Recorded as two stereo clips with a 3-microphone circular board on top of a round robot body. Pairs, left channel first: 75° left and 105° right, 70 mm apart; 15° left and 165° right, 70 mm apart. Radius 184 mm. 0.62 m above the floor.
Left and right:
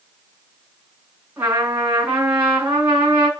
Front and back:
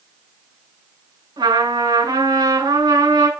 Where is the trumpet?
175° right, 6.5 m.